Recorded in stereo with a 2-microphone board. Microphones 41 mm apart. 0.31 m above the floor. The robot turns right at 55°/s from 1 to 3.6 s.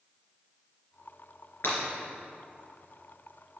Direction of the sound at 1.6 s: 65° left (ahead or behind).